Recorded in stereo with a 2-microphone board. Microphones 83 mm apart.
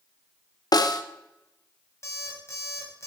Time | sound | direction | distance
0.7 | a snare drum | 55° left (ahead or behind) | 0.8 m
2.0 | an alarm clock | 35° left (ahead or behind) | 2.5 m